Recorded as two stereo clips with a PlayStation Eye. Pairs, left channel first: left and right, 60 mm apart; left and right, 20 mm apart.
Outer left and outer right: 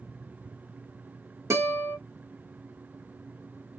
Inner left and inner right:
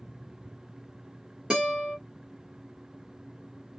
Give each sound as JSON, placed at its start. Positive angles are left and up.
{"t": 1.5, "sound": "a guitar", "side_deg": -55, "distance_m": 1.7}